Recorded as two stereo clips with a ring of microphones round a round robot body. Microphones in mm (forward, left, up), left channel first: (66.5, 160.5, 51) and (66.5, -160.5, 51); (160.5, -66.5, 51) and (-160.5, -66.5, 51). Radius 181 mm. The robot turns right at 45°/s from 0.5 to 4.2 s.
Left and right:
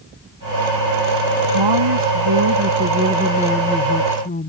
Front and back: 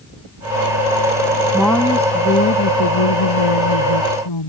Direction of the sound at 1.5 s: 95° right.